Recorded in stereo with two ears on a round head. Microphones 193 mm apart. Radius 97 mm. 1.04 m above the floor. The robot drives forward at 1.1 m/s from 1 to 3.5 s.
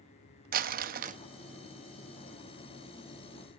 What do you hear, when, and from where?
0.5 s crumpling: 45° right (ahead or behind), 0.8 m; by 1.2 s 35° right (ahead or behind), 0.9 m